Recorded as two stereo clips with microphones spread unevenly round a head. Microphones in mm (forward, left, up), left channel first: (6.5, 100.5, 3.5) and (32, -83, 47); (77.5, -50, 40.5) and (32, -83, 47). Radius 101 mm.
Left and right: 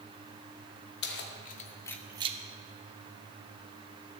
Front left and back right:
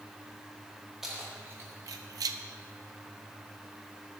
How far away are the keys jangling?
About 1.2 m.